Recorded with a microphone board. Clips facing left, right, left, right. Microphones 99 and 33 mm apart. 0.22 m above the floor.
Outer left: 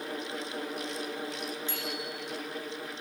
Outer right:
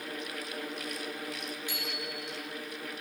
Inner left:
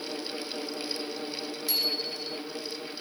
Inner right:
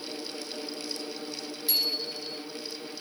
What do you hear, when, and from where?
1.7 s a bicycle bell: 15° right (ahead or behind), 7 m